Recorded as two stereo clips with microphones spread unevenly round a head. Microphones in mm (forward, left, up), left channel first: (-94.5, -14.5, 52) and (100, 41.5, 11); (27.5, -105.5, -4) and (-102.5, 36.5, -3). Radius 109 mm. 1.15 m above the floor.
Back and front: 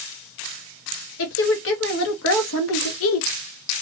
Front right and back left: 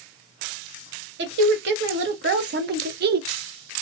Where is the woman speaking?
165° left, 1.6 m; by 3.3 s 175° left, 0.6 m.